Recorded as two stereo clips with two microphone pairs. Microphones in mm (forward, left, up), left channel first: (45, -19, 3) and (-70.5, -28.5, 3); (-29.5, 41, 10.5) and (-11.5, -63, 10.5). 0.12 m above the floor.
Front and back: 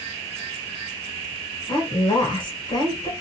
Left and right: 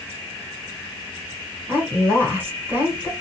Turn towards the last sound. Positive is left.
turn(degrees=-20)